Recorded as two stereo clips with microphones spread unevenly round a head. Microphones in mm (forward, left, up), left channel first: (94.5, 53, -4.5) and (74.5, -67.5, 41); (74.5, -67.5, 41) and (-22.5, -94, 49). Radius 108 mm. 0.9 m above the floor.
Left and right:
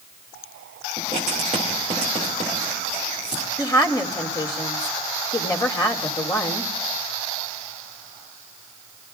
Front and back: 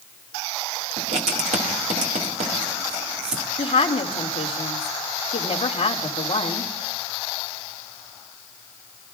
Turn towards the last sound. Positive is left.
turn(degrees=20)